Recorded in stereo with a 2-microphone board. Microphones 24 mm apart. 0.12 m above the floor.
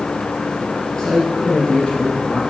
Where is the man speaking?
30° left (ahead or behind), 2.5 m; by 2.4 s 50° left (ahead or behind), 2.5 m.